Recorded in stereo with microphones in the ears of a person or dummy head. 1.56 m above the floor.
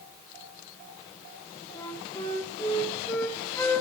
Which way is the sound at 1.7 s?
15° left (ahead or behind).